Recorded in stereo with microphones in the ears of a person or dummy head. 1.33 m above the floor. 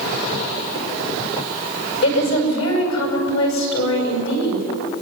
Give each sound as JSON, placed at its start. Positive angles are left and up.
{"t": 2.0, "sound": "a woman speaking", "side_deg": 80, "distance_m": 6.5}